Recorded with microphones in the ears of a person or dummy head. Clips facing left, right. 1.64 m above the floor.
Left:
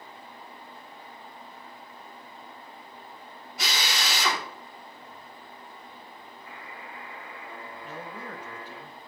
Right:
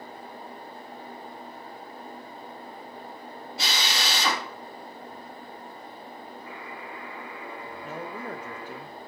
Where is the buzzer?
70° right (ahead or behind), 1.8 m.